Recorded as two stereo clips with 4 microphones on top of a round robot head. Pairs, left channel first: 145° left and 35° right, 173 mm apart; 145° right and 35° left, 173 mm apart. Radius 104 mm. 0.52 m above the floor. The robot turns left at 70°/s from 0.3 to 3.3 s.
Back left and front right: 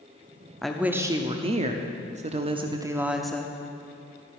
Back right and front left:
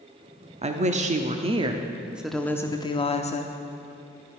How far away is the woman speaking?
About 0.8 m.